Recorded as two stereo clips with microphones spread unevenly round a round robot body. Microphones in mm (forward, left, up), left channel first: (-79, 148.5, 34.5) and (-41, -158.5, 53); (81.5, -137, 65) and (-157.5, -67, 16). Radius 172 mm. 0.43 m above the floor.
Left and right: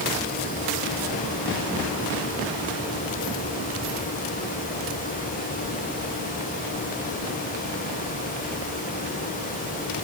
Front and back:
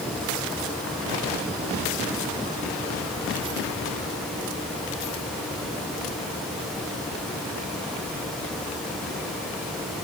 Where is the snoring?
No snoring in this recording.